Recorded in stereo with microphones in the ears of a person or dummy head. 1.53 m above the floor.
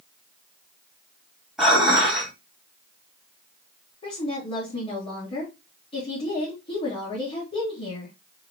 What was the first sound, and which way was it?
Dishes clattering, centre (ahead or behind).